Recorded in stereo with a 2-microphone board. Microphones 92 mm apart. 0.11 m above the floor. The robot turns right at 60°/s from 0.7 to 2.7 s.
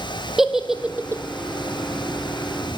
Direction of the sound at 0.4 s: 5° right (ahead or behind).